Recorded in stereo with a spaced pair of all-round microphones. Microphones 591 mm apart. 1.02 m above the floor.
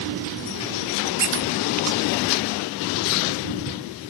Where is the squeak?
65° right (ahead or behind), 0.5 m.